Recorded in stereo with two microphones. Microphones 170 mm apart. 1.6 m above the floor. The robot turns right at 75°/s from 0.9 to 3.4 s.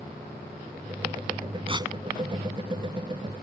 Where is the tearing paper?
35° right (ahead or behind); by 1.9 s 15° right (ahead or behind).